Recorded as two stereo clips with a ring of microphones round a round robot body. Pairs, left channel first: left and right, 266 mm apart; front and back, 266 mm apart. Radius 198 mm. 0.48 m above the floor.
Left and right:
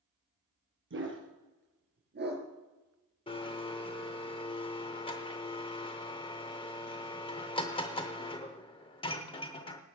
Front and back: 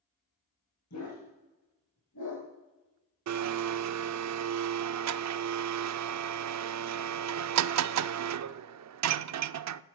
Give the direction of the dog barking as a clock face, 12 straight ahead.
2 o'clock.